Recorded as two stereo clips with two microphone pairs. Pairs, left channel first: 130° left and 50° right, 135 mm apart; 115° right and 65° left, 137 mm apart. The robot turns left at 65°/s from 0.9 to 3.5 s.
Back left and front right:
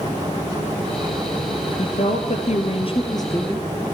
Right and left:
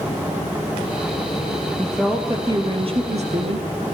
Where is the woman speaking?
165° left, 2.0 m; by 4.0 s 55° left, 2.0 m.